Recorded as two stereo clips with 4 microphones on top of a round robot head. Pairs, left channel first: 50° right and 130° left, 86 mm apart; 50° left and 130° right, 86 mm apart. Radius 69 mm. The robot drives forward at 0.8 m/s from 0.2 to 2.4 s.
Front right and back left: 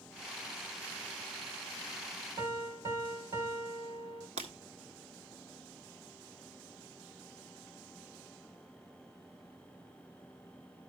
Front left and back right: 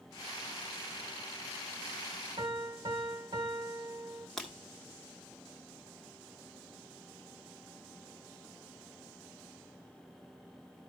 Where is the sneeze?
I don't hear a sneeze.